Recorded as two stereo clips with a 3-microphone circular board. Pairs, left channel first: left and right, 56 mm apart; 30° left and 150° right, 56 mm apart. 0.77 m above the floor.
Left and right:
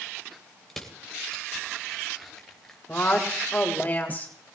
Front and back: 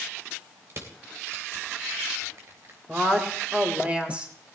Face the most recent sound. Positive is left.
turn(degrees=145)